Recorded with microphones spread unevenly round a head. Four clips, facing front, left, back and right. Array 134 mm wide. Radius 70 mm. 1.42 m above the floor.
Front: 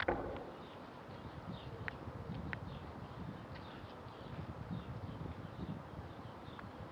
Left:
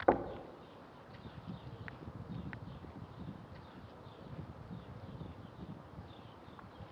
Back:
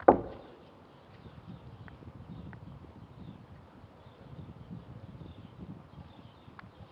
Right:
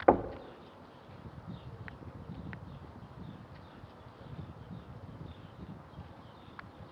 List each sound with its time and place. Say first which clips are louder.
0.1 s knocking: right 5 dB, back 17 dB; 170° right, 0.6 m